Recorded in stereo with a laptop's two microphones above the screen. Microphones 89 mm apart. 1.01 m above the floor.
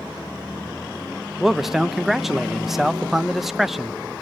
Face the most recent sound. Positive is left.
turn(degrees=0)  # may be behind; listen again after turning